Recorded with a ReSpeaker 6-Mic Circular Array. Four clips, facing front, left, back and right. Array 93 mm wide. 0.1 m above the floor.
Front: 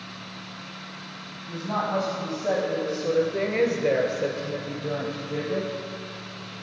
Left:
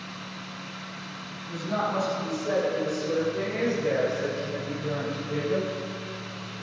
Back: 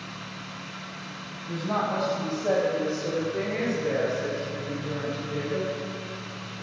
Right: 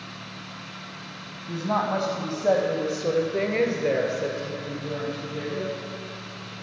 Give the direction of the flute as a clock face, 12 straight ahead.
I don't hear a flute.